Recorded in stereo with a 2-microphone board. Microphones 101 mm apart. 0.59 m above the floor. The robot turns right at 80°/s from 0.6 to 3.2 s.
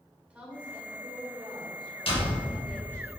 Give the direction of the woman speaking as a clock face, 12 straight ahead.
6 o'clock.